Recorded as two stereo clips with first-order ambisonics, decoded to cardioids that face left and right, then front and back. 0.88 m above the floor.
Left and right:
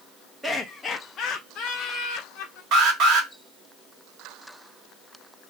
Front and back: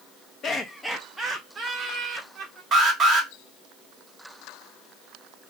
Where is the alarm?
115° right, 1.4 m.